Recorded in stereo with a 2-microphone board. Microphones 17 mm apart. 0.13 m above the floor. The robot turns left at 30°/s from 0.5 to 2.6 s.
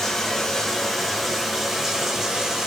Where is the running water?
20° left, 1.7 m; by 2.7 s 40° right, 1.7 m.